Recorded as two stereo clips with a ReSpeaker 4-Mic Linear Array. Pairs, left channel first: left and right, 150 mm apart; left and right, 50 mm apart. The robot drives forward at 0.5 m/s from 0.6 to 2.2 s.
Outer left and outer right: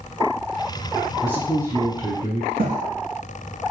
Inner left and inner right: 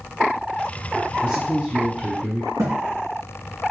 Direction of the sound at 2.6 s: 75° right (ahead or behind).